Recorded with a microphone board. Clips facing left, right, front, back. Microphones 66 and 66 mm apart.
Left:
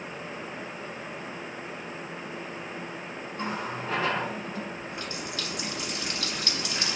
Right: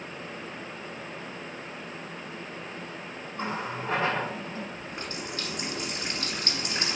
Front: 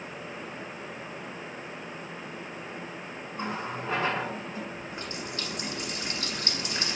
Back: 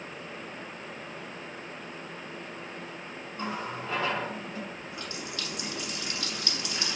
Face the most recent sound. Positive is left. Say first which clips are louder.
# left 1 dB, front 2 dB
turn(degrees=-50)